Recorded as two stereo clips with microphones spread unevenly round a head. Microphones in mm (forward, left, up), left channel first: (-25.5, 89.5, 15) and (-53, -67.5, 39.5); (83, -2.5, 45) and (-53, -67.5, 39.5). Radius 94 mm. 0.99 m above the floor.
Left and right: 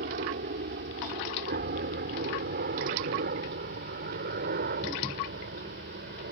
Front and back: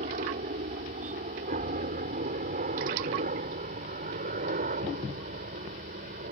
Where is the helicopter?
125° right.